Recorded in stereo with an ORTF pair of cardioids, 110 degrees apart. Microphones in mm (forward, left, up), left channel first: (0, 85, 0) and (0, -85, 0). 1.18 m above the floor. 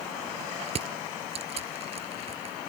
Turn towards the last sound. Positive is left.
turn(degrees=-35)